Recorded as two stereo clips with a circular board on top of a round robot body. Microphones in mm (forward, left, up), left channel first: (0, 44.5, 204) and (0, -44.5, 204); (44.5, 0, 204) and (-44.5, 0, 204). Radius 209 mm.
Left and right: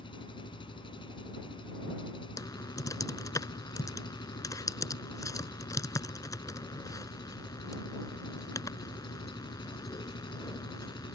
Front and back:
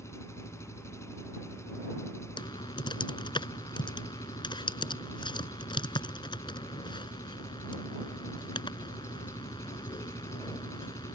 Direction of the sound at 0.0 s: 60° left.